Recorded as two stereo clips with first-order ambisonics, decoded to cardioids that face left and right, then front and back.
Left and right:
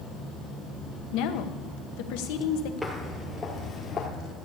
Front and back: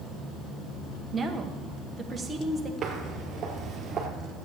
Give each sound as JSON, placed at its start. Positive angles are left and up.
{"t": 1.1, "sound": "a woman speaking", "azimuth_deg": 100, "distance_m": 1.2}
{"t": 2.8, "sound": "footsteps", "azimuth_deg": 180, "distance_m": 1.7}